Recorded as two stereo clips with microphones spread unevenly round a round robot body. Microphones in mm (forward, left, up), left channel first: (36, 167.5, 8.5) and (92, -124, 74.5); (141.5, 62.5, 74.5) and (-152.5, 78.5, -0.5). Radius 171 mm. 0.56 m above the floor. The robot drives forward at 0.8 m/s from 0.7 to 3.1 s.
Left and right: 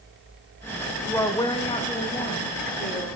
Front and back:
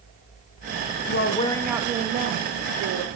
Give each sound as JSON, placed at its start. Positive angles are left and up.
{"t": 1.1, "sound": "a woman speaking", "azimuth_deg": 40, "distance_m": 0.7}